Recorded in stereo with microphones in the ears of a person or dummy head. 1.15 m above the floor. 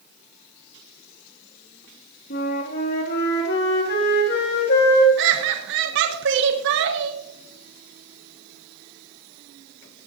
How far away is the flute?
About 3 m.